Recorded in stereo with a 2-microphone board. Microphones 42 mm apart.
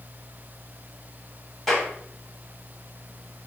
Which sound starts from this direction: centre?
A clap, at 1.7 s.